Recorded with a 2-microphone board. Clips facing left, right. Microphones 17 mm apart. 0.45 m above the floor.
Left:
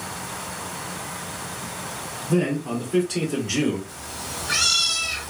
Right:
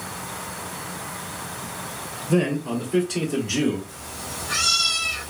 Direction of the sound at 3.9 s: 65° left (ahead or behind).